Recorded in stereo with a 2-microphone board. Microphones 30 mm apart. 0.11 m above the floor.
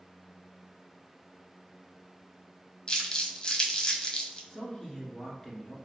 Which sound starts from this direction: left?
Crumpling, at 2.9 s.